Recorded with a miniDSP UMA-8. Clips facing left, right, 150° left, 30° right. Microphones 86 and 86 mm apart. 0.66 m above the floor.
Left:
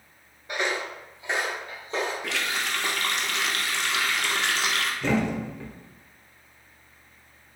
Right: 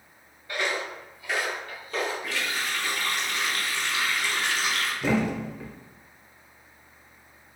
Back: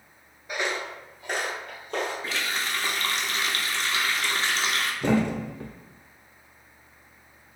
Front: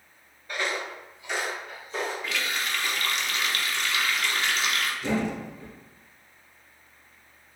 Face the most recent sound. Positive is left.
turn(degrees=-175)